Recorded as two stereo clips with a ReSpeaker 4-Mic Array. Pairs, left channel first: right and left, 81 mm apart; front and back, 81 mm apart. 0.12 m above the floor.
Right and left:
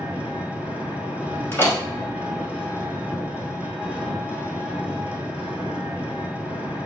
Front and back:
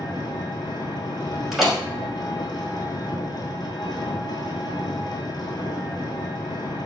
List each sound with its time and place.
0.0 s an engine running: 20° left, 1.0 m
1.5 s a door slam: 95° right, 1.1 m